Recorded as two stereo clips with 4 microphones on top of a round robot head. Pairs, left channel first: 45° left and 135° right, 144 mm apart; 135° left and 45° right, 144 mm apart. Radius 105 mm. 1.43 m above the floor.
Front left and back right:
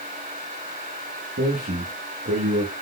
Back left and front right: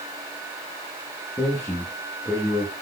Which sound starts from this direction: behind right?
A man speaking, at 1.4 s.